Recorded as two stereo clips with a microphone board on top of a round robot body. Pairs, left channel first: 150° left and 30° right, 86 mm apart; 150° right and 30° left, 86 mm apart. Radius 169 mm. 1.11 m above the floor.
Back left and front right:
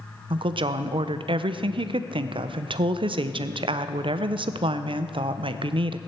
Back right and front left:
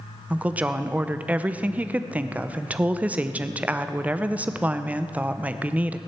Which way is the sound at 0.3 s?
45° right.